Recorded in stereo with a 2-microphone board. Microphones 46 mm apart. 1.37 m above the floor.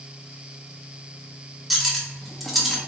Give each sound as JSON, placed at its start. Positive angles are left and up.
{"t": 1.7, "sound": "cutlery clinking", "side_deg": 0, "distance_m": 1.1}